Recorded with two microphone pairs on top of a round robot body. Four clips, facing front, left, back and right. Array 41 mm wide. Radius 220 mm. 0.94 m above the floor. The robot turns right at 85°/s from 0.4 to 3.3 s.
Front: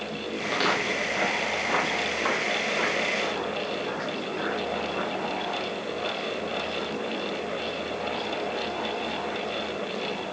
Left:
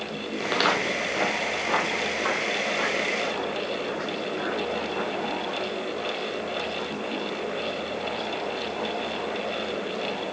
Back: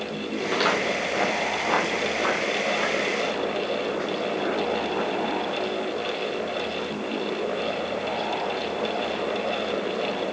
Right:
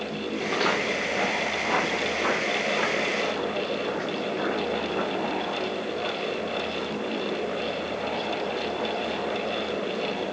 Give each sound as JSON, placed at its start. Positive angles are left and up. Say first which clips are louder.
{"t": 0.4, "sound": "footsteps", "louder": "left 2 dB, back 2 dB", "azimuth_deg": 80, "distance_m": 1.7}